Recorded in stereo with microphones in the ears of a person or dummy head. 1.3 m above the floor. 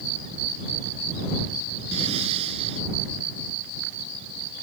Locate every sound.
1.9 s breathing: 30° right (ahead or behind)